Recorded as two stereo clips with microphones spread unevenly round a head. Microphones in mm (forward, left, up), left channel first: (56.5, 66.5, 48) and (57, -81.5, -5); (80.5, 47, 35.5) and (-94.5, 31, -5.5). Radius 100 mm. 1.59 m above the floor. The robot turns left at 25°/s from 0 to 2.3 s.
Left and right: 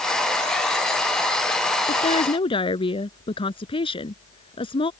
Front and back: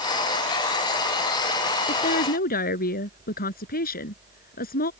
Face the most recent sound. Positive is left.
turn(degrees=40)